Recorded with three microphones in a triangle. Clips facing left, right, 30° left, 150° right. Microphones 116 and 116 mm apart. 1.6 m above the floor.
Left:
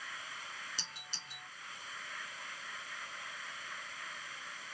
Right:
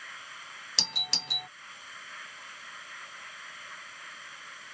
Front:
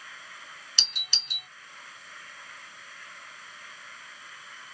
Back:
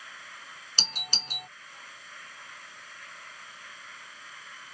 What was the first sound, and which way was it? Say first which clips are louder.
A doorbell: right 10 dB, back 9 dB; 100° right.